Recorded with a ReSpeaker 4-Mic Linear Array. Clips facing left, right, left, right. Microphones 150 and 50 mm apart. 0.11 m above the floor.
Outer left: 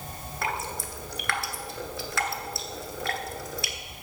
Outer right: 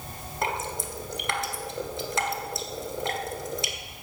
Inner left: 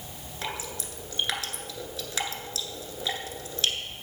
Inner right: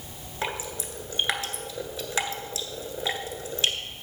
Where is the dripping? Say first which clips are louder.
Outer right 2 dB, inner right 4 dB; 20° right (ahead or behind), 1.5 m.